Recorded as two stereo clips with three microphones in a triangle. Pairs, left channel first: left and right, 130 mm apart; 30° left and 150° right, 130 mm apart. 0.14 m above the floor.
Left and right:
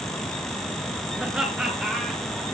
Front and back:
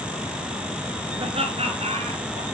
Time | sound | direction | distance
1.2 | laughter | 170° right | 2 m